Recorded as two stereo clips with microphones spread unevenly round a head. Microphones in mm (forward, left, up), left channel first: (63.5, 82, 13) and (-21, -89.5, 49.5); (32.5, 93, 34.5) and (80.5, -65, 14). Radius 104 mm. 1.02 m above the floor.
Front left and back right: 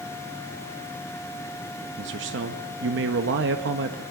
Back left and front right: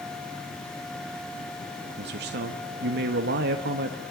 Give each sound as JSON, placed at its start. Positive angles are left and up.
{"t": 2.0, "sound": "a man speaking", "azimuth_deg": -85, "distance_m": 1.4}